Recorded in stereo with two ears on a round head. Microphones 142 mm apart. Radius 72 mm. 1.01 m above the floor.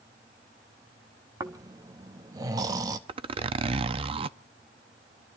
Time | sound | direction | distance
1.4 | snoring | 25° right (ahead or behind) | 0.8 m
3.1 | a zipper | 35° right (ahead or behind) | 0.5 m